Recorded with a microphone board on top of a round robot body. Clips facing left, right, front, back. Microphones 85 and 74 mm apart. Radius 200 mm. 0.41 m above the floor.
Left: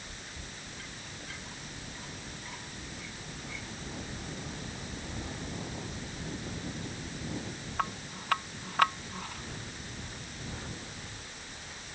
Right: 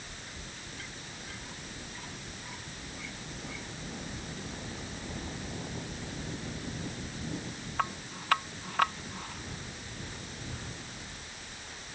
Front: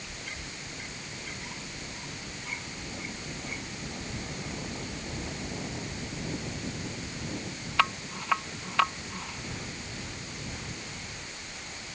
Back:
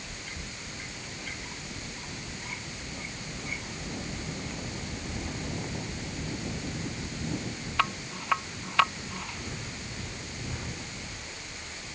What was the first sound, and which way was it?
Only background noise.